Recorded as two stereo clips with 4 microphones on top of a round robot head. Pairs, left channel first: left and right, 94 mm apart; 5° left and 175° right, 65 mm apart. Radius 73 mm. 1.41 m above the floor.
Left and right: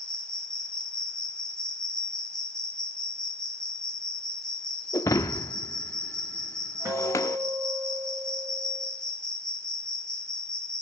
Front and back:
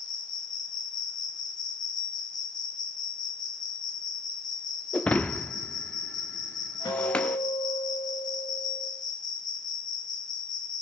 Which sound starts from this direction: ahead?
An insect, at 0.0 s.